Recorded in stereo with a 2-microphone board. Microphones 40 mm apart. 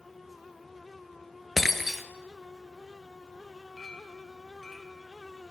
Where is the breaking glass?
5° right (ahead or behind), 1.6 m.